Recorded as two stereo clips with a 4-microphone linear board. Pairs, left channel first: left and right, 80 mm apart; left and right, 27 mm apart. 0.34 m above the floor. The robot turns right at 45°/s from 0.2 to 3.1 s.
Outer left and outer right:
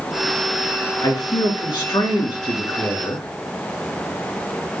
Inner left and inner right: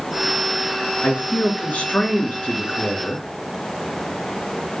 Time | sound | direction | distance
1.0 | a man speaking | 50° left | 3.5 m